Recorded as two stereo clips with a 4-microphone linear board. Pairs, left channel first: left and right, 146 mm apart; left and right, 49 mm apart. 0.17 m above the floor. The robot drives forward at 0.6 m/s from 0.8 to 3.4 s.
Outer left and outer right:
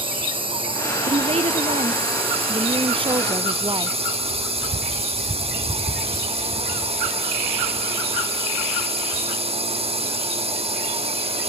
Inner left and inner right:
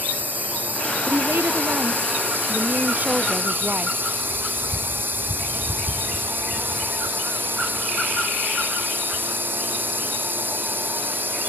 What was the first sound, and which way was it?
A drone, 35° right (ahead or behind).